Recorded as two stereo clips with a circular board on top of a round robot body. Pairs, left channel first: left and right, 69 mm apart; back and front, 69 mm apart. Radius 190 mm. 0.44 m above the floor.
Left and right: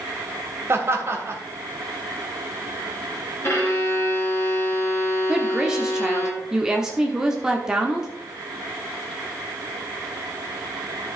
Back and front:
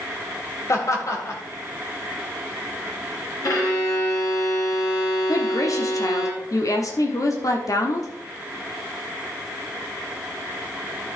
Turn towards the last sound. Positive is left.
turn(degrees=-170)